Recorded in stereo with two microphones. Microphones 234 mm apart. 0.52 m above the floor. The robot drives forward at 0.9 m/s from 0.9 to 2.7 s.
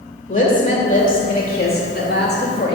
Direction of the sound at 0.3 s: 35° left (ahead or behind).